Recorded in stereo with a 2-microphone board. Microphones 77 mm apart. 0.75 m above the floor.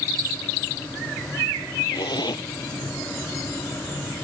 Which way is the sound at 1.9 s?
70° left (ahead or behind).